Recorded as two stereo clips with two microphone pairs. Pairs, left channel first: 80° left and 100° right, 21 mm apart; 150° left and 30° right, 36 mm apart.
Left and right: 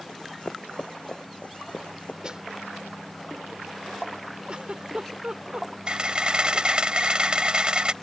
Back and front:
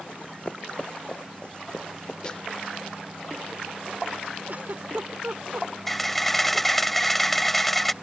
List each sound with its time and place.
0.1 s running footsteps: 105° left; by 2.1 s 90° left
2.2 s a snare drum: 145° right
4.5 s a giggle: 65° right
5.9 s a camera shutter: 125° right